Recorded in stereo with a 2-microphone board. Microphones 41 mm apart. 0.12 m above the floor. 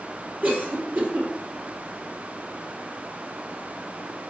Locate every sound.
0.4 s a cough: 55° right (ahead or behind), 3 m